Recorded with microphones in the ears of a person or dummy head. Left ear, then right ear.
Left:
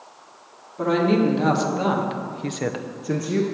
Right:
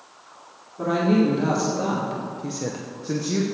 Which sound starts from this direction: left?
A woman speaking, at 0.8 s.